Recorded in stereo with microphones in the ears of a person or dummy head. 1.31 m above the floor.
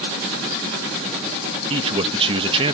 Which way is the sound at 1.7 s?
35° right (ahead or behind).